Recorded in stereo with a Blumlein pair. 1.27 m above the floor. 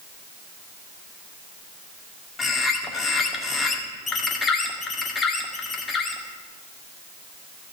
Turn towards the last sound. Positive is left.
turn(degrees=15)